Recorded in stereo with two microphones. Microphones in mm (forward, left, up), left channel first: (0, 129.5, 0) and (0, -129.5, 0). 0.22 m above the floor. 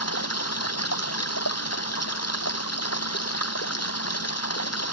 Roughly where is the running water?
Left.